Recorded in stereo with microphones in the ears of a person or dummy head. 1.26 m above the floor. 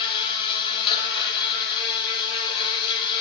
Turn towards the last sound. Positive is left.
turn(degrees=25)  # may be behind; listen again after turning